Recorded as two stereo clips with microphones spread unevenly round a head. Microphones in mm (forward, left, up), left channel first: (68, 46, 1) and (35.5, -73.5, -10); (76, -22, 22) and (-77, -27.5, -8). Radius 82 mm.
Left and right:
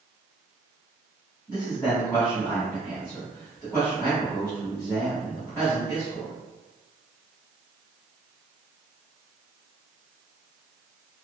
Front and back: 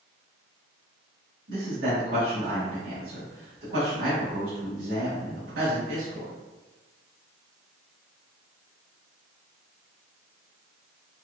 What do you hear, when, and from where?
1.5 s a man speaking: 150° left, 1.9 m